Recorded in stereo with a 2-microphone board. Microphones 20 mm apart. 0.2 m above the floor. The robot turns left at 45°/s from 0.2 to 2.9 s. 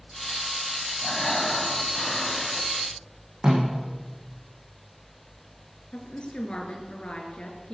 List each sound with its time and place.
1.0 s breathing: 25° left (ahead or behind), 1.6 m; by 2.7 s 10° left (ahead or behind), 1.6 m
3.4 s a snare drum: 45° right (ahead or behind), 9.5 m
5.9 s a woman speaking: 55° left (ahead or behind), 3.5 m